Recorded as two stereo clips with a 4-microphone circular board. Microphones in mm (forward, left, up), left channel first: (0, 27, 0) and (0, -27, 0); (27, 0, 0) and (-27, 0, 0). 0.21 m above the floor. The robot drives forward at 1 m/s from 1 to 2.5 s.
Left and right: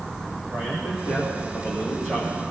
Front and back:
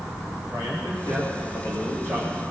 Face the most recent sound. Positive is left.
turn(degrees=-140)